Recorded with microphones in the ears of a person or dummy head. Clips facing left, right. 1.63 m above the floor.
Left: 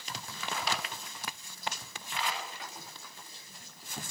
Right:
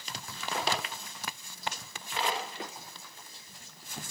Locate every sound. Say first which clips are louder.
0.5 s a drawer: right 4 dB; 25° right (ahead or behind), 1.0 m